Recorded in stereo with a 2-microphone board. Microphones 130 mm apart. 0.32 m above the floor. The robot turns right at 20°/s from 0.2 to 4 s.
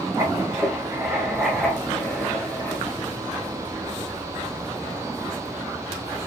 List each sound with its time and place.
0.2 s writing: 30° right, 0.9 m; by 2.8 s 25° left, 0.9 m